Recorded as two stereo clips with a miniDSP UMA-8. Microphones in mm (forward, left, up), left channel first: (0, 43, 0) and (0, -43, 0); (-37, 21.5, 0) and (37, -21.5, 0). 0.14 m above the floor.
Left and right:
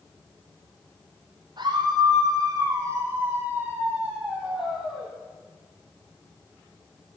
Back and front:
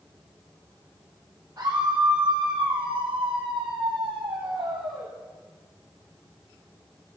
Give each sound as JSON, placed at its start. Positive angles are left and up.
{"t": 1.6, "sound": "a scream", "azimuth_deg": -75, "distance_m": 2.5}